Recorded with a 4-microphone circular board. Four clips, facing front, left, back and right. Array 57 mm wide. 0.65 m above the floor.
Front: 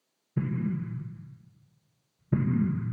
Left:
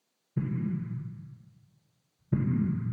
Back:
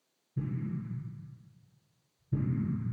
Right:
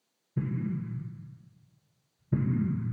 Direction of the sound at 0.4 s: 5° left.